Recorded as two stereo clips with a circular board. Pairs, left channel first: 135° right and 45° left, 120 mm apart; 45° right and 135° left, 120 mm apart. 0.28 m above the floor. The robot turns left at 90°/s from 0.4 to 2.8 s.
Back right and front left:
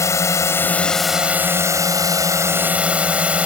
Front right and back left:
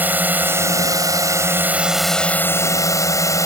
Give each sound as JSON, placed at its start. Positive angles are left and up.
{"t": 0.0, "sound": "a drone", "azimuth_deg": -165}